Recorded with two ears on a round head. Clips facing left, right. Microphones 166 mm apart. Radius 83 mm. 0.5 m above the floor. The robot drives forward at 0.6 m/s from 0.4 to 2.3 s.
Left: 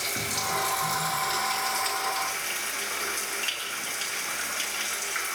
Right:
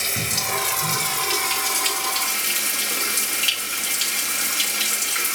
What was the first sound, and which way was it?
Running water, 30° right (ahead or behind).